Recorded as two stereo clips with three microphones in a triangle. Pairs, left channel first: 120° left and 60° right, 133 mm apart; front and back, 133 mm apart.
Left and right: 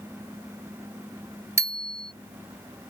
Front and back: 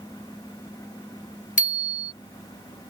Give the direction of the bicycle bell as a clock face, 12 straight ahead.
12 o'clock.